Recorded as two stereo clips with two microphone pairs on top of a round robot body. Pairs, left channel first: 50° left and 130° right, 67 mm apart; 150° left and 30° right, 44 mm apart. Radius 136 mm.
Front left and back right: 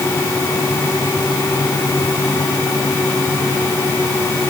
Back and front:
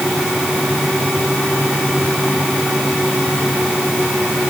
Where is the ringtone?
No ringtone in this recording.